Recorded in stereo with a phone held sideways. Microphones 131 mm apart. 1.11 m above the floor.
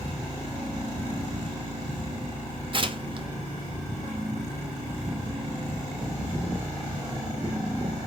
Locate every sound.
2.7 s tearing paper: 40° right (ahead or behind), 0.7 m